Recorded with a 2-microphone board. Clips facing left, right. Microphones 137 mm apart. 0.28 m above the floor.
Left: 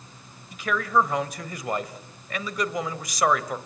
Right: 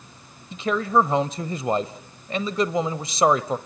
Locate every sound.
0.5 s a man speaking: 25° right (ahead or behind), 1.0 m